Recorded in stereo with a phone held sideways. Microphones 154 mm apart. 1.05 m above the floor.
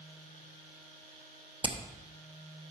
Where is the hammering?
35° right (ahead or behind), 0.9 m.